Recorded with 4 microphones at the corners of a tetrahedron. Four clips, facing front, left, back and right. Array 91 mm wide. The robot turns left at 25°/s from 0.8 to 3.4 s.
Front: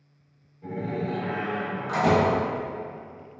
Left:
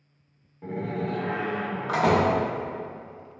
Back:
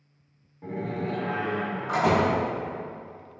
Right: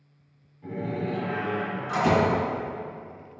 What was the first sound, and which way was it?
A door slam, 120° left.